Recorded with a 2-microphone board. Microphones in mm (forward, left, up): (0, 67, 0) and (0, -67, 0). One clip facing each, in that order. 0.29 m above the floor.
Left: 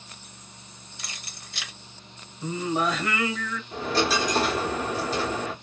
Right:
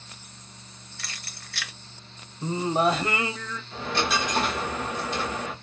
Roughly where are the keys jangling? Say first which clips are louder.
Even; left.